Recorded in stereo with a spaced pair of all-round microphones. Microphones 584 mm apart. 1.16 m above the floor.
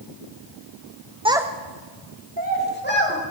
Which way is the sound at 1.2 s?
10° right (ahead or behind).